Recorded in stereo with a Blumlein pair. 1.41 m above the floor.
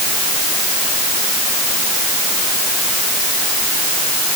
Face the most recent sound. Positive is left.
No sound to turn to.